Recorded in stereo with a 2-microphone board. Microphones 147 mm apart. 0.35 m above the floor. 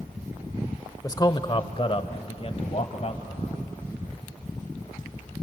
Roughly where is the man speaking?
Left.